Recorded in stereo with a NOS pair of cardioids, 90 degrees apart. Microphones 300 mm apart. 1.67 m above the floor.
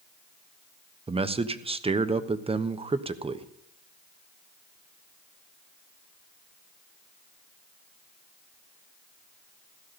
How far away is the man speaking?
About 1.1 m.